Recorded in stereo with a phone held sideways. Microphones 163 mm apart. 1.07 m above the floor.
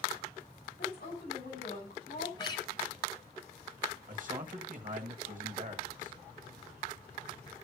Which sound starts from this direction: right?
A man speaking, at 4.1 s.